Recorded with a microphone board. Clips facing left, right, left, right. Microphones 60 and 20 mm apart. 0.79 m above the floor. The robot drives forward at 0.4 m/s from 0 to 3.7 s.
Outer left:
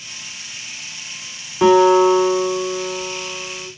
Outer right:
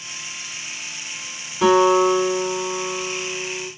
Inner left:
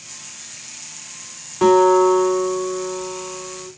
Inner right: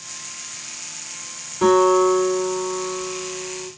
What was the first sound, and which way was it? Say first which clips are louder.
A guitar: outer left 3 dB, inner left 2 dB; 40° left (ahead or behind).